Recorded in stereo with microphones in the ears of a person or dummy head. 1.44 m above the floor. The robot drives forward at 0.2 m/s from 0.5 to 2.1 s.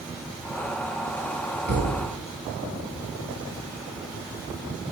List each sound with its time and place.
1.7 s a thud: 55° right (ahead or behind), 2 m; by 2.1 s 50° right (ahead or behind), 2 m